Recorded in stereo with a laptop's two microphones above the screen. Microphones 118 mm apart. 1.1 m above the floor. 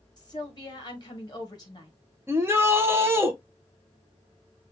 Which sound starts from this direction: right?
A shout, at 2.3 s.